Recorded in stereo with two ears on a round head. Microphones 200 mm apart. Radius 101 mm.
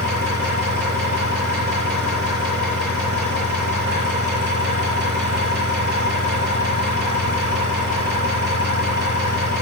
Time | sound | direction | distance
0.0 | an engine running | 50° right (ahead or behind) | 7 m